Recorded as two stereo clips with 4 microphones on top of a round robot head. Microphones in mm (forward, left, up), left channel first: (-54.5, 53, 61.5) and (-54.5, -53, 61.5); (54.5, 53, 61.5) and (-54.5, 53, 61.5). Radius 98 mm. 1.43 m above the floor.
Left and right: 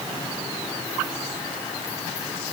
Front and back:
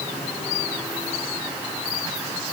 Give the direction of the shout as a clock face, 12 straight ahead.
I don't hear a shout.